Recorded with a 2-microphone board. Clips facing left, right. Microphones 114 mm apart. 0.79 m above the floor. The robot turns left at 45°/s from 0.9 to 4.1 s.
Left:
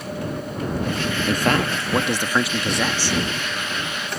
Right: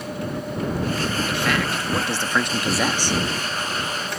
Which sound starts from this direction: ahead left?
A man speaking, at 1.3 s.